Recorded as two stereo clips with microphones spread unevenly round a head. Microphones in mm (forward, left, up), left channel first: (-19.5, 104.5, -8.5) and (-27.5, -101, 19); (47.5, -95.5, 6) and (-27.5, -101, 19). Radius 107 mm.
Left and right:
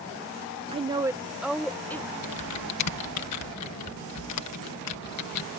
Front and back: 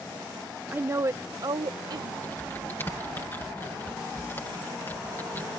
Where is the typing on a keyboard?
85° left.